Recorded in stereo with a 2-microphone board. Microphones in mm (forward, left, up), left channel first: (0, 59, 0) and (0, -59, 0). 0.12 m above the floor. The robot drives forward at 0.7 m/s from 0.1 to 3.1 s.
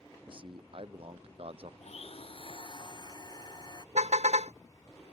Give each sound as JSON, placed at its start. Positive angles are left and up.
{"t": 0.3, "sound": "a man speaking", "side_deg": -45}
{"t": 1.8, "sound": "a blender", "side_deg": 70}
{"t": 4.0, "sound": "a car horn", "side_deg": -80}